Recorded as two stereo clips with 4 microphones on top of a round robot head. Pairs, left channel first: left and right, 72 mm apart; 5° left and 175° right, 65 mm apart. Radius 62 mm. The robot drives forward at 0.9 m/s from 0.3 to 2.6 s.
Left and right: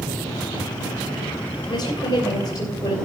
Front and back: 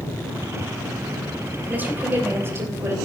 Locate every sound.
1.7 s a woman speaking: 120° left, 3 m; by 3.0 s 130° left, 3.5 m